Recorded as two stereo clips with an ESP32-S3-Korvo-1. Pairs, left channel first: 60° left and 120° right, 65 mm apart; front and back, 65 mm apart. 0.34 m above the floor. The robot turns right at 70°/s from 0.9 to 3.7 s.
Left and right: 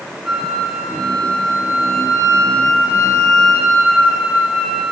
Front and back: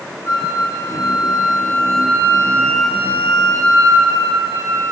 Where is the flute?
40° right, 2 m; by 4.9 s 155° left, 2 m.